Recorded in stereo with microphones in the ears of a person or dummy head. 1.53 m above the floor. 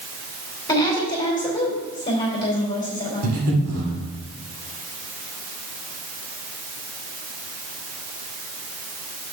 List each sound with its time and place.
0.7 s a woman speaking: 20° left (ahead or behind), 2.5 m
3.2 s breathing: 80° right, 1.7 m